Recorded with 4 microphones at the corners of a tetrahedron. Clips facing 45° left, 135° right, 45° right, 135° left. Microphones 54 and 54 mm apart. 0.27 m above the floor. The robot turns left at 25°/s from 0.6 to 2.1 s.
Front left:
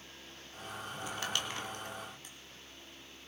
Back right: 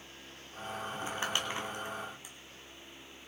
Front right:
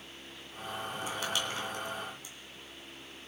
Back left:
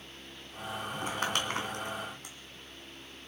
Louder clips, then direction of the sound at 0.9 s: Back right 2 dB, back left 3 dB; 175° left.